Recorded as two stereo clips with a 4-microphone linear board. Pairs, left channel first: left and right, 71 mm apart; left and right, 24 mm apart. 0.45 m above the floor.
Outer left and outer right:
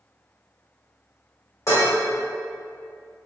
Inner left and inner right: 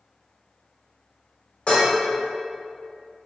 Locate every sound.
1.7 s dishes clattering: 45° left (ahead or behind), 1.0 m